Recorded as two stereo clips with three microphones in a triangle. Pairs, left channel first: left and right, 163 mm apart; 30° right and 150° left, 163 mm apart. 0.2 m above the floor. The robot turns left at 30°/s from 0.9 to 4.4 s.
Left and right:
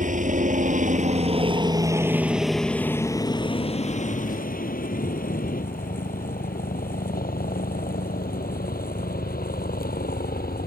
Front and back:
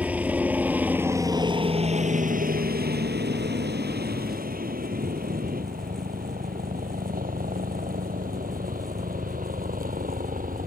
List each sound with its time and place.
0.0 s a helicopter: 130° right; by 10.7 s 115° left